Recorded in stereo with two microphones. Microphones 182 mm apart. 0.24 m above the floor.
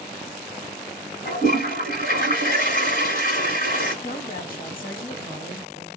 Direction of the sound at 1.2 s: 50° left (ahead or behind).